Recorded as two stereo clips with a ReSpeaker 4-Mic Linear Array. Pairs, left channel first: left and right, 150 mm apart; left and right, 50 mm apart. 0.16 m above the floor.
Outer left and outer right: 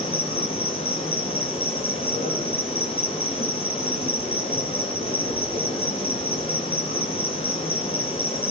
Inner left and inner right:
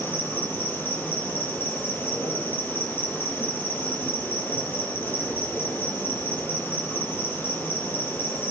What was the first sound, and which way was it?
An insect, 40° left (ahead or behind).